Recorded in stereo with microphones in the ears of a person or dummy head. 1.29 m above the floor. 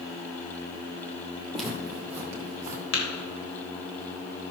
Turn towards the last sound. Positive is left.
turn(degrees=85)